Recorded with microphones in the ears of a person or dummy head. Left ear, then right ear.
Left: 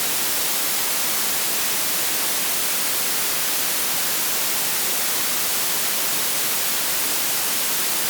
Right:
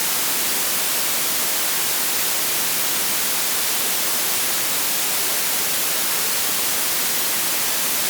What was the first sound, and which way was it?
Only background noise.